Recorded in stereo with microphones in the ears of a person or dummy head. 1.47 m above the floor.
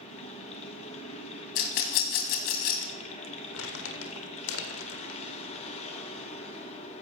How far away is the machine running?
About 1.9 m.